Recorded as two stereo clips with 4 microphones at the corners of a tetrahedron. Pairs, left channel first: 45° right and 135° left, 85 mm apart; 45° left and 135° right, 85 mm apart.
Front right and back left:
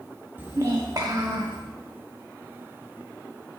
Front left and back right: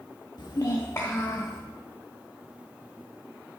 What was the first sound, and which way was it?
A child speaking, 70° left.